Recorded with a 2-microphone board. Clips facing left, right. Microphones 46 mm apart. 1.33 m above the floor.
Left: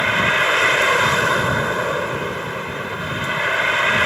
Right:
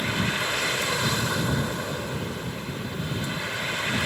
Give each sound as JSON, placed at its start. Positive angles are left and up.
{"t": 0.0, "sound": "a vehicle", "side_deg": 55}